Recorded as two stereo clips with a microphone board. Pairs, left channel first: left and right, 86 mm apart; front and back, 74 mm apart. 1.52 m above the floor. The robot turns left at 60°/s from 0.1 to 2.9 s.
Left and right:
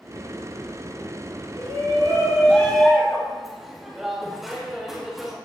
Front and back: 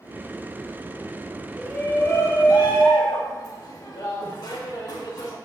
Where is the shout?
75° left, 2 m; by 5.3 s 5° right, 2 m.